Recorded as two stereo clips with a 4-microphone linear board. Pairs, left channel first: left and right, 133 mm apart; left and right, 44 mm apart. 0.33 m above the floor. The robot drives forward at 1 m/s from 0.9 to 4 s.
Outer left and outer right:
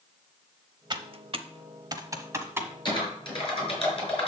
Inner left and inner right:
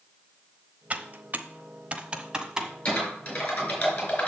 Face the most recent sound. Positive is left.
turn(degrees=45)  # may be behind; listen again after turning